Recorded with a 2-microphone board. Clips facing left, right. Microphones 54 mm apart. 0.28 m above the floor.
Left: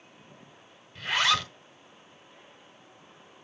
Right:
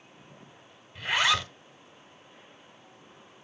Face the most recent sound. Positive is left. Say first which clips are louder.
# even
turn(degrees=-15)  # may be behind; listen again after turning